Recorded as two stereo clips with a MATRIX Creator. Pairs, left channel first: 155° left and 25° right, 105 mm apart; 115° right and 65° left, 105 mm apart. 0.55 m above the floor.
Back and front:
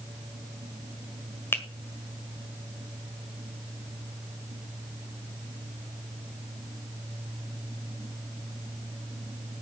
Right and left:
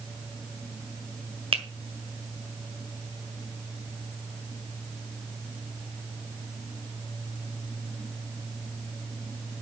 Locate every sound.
1.5 s a finger snap: 90° left, 1.6 m